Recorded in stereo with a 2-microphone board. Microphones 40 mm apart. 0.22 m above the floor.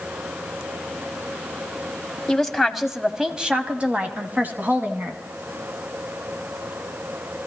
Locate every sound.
2.3 s a woman speaking: 10° left (ahead or behind), 1.3 m; by 5.2 s 55° right (ahead or behind), 2 m